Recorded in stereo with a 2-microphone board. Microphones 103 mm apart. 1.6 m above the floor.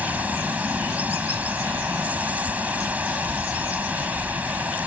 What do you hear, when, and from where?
0.0 s running water: 15° right (ahead or behind)